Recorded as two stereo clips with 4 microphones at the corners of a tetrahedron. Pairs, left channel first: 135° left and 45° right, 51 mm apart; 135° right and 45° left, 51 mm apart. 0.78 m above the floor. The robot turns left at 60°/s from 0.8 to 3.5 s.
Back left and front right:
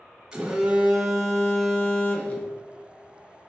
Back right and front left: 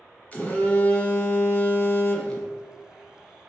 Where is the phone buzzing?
105° right, 0.9 m; by 2.5 s 150° left, 0.9 m.